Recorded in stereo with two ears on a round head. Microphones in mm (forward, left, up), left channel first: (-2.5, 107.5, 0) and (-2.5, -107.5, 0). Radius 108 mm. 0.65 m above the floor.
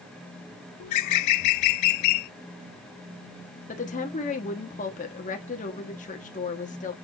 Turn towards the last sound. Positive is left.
turn(degrees=30)  # may be behind; listen again after turning